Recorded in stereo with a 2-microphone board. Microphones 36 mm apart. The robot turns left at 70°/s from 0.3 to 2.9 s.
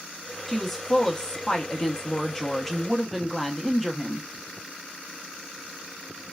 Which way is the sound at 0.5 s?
5° left (ahead or behind).